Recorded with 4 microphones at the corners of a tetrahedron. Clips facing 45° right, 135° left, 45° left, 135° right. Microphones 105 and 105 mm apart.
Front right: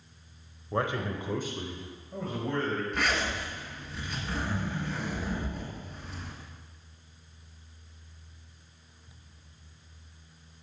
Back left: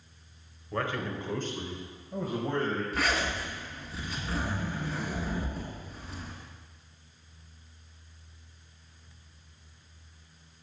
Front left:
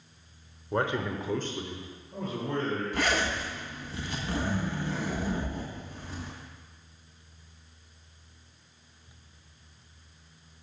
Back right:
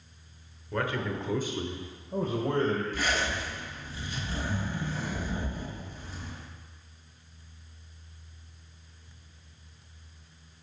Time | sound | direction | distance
0.7 | a man speaking | 5° left | 1.1 m
2.9 | a zipper | 50° left | 1.7 m